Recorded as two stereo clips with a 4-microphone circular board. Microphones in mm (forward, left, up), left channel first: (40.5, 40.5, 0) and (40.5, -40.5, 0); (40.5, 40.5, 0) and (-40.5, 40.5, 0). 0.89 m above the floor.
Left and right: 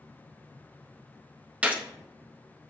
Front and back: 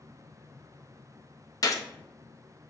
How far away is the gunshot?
About 0.6 m.